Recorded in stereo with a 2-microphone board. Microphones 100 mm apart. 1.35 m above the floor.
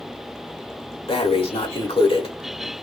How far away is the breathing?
About 1.2 m.